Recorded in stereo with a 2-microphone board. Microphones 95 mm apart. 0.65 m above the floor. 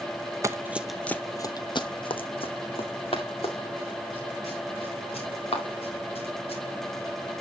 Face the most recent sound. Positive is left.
turn(degrees=85)